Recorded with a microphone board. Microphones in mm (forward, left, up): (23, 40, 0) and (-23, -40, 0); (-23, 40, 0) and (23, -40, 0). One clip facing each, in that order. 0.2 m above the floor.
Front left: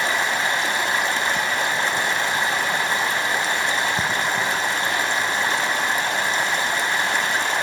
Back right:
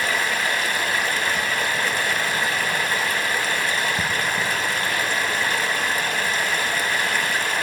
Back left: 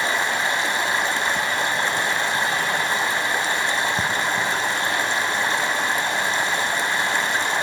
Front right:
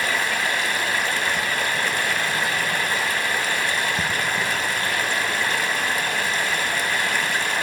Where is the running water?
90° left, 0.7 m.